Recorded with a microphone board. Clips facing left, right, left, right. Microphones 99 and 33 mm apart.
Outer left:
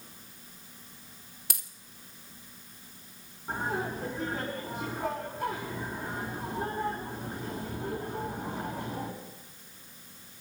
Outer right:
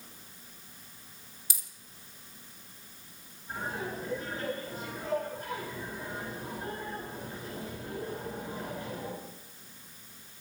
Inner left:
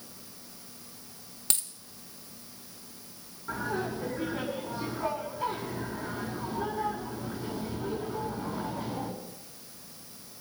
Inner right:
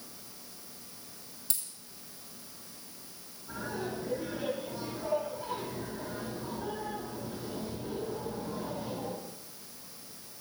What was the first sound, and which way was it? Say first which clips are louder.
A dropped coin: outer left 7 dB, inner left 8 dB; 60° left (ahead or behind).